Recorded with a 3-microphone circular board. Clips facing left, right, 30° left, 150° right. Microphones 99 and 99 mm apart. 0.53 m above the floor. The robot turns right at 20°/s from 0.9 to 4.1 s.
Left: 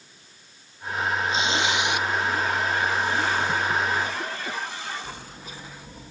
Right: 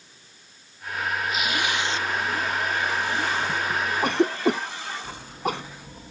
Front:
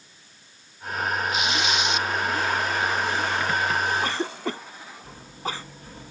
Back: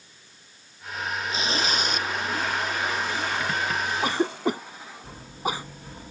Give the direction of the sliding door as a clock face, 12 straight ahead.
I don't hear a sliding door.